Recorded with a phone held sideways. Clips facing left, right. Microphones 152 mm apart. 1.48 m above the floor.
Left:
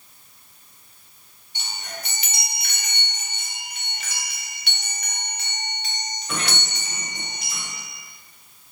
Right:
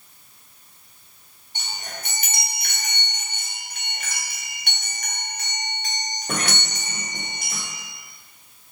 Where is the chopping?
No chopping in this recording.